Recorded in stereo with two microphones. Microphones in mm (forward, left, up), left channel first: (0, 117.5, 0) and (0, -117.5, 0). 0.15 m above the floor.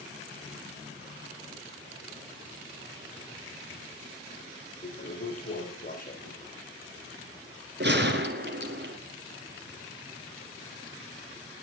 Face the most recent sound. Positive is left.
turn(degrees=-50)  # may be behind; listen again after turning